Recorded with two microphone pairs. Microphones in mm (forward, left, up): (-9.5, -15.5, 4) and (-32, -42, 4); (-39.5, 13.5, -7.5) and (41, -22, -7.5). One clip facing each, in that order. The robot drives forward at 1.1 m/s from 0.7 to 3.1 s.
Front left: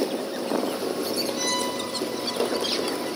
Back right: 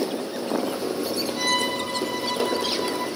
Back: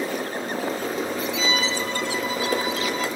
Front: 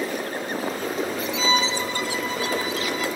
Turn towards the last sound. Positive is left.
turn(degrees=-145)